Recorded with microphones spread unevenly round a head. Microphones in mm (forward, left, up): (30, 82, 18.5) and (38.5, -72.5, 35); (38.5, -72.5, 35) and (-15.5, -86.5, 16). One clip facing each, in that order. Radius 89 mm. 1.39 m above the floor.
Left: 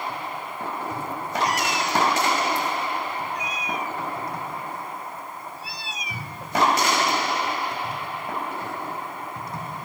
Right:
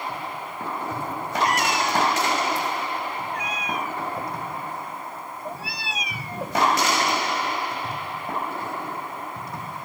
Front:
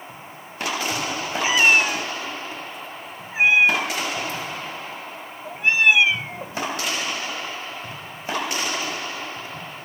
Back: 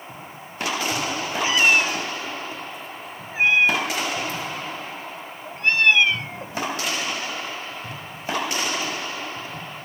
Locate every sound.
1.4 s a cat meowing: 50° right; by 6.6 s 65° right